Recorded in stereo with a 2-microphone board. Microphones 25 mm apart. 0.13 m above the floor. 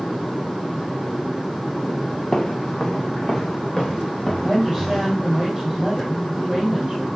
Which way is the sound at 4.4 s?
5° right (ahead or behind).